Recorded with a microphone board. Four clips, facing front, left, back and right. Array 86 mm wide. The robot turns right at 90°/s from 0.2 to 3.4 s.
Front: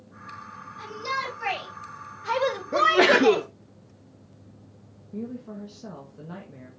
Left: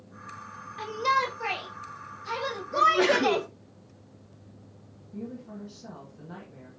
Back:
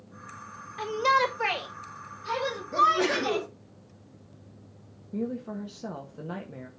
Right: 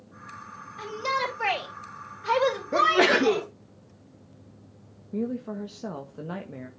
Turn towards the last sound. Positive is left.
turn(degrees=-115)